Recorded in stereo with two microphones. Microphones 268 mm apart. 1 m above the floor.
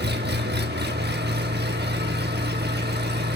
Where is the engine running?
40° right (ahead or behind), 1.0 m.